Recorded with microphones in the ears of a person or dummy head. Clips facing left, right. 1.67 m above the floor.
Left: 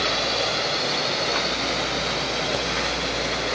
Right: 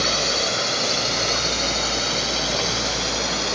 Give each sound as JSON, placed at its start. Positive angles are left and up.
{"t": 0.0, "sound": "a drone", "side_deg": -50}